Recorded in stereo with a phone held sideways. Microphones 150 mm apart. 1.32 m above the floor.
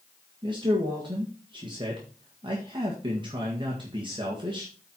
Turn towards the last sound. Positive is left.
turn(degrees=-30)  # may be behind; listen again after turning